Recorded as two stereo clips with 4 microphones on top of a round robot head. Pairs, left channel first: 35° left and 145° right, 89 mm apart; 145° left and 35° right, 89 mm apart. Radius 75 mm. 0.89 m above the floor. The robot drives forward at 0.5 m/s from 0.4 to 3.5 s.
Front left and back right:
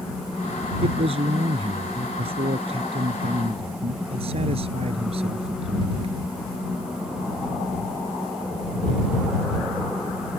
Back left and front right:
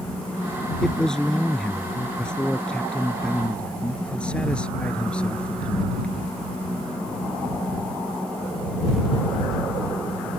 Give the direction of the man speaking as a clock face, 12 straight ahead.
4 o'clock.